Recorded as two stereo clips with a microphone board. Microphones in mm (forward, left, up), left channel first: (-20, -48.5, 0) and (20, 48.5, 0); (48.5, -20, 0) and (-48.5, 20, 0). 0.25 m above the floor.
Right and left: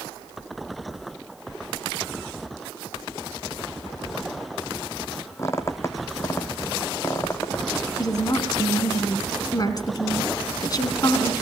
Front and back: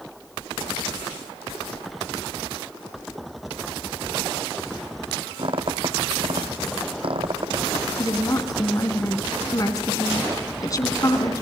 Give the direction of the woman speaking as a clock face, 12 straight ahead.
2 o'clock.